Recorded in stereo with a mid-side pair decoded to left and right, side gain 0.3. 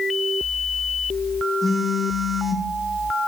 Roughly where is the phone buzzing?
Ahead left.